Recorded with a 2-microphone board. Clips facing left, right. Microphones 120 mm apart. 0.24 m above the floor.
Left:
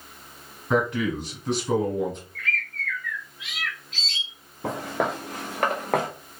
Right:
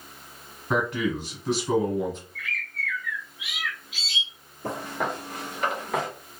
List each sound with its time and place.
0.7 s a man speaking: 5° right (ahead or behind), 1.4 m
2.4 s a bird: 10° right (ahead or behind), 0.8 m
4.6 s footsteps: 80° left, 1.6 m; by 6.1 s 50° left (ahead or behind), 1.0 m